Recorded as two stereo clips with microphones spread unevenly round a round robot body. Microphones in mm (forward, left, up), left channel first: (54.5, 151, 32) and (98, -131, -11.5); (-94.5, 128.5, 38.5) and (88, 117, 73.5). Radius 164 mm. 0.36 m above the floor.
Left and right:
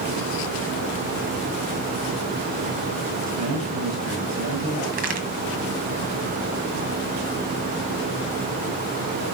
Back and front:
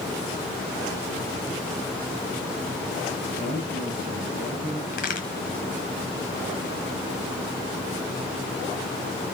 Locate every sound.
3.3 s a man speaking: 60° right, 3 m
4.9 s a crack: 145° right, 1.3 m